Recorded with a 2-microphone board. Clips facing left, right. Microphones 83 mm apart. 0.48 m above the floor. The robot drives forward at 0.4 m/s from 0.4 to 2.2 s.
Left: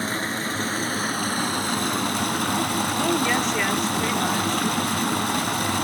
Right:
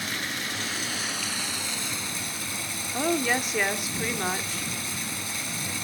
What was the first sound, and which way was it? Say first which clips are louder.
Running water: left 6 dB; 35° left (ahead or behind).